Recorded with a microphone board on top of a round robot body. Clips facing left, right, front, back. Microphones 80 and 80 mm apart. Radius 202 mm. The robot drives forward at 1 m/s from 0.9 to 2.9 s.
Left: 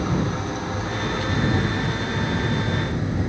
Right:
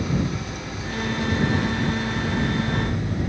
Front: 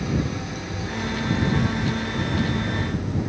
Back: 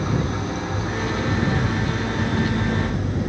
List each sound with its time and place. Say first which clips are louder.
0.0 s an engine running: left 2 dB, back 2 dB; 140° left, 3.5 m; by 3.3 s 155° left, 5 m